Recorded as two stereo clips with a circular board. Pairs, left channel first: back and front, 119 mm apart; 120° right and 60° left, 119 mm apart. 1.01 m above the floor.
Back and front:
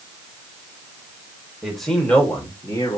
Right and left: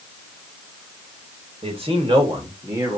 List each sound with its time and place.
1.6 s a man speaking: 90° left, 2 m; by 3.0 s 130° left, 1.8 m